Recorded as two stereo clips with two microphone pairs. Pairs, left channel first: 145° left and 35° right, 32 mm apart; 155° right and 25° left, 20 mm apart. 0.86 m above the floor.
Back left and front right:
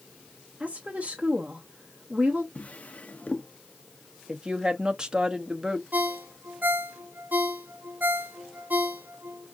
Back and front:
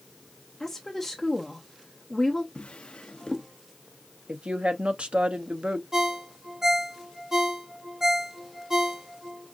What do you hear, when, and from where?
0.6 s a woman speaking: 75° right, 0.9 m
2.5 s a drawer: 170° right, 0.6 m
4.3 s a woman speaking: 20° left, 0.8 m
5.9 s a ringtone: 35° right, 1.0 m